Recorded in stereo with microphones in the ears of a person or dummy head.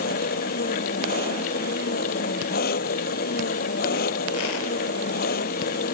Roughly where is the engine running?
Left.